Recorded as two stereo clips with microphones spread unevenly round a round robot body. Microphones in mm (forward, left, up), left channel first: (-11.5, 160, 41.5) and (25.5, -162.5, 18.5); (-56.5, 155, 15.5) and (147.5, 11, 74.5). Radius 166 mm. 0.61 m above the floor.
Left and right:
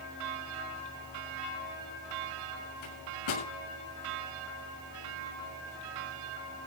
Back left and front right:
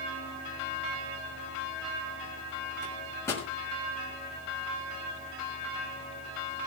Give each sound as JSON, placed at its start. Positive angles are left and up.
{"t": 2.8, "sound": "a microwave", "azimuth_deg": 65, "distance_m": 7.0}